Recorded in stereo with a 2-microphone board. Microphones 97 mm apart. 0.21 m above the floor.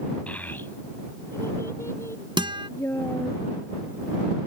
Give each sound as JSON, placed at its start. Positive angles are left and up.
{"t": 0.3, "sound": "a child speaking", "side_deg": 15}
{"t": 2.4, "sound": "a guitar", "side_deg": -55}